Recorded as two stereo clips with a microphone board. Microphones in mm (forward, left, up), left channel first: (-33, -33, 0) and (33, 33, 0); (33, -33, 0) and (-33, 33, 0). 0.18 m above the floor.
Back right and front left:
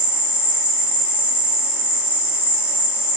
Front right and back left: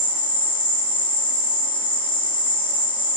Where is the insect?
35° right, 1.0 m.